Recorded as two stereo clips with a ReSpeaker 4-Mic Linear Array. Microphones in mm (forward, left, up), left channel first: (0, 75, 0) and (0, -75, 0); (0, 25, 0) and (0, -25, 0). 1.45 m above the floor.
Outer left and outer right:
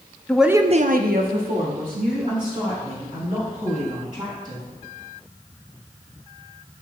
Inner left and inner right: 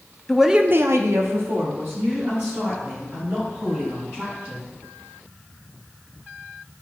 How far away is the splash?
No splash in this recording.